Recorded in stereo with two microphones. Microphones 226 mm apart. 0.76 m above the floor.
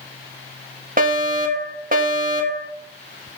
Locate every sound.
1.0 s a fire alarm: 40° right (ahead or behind), 1.6 m